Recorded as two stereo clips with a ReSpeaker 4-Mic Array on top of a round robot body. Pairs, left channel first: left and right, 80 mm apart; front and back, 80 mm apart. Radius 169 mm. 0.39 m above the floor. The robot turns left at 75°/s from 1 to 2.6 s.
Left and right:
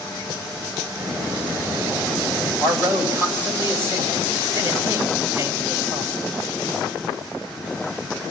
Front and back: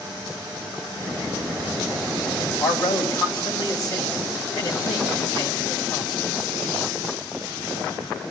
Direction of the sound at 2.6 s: 30° right.